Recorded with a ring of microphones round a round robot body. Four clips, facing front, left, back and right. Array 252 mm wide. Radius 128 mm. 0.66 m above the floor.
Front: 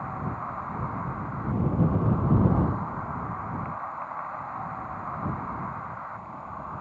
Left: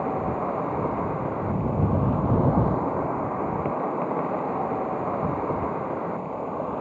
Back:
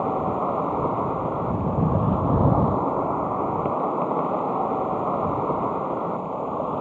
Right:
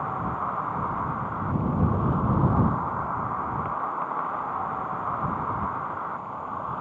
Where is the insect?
145° left.